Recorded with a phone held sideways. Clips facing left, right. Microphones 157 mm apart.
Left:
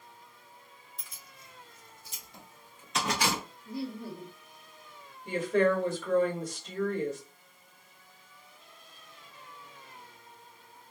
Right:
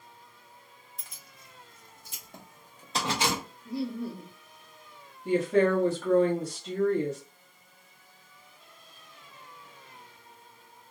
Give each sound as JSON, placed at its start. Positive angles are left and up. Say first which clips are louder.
{"t": 1.0, "sound": "keys jangling", "louder": "even", "side_deg": -55, "distance_m": 1.4}
{"t": 3.6, "sound": "laughter", "louder": "right 5 dB", "side_deg": -85, "distance_m": 1.3}
{"t": 5.2, "sound": "a woman speaking", "louder": "right 3 dB", "side_deg": -70, "distance_m": 1.0}